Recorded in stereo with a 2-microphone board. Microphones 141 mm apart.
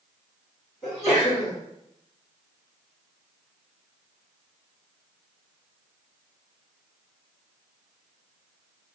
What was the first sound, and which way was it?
A sneeze, centre (ahead or behind).